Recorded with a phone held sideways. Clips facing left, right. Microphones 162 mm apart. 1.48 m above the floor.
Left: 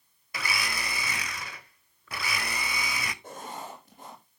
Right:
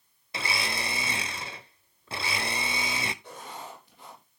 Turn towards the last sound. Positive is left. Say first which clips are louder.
# left 2 dB
turn(degrees=45)  # may be behind; listen again after turning